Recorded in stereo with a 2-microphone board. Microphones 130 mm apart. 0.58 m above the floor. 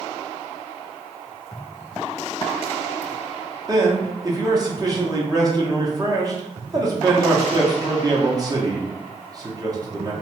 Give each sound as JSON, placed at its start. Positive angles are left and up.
{"t": 3.7, "sound": "a man speaking", "side_deg": -30, "distance_m": 0.7}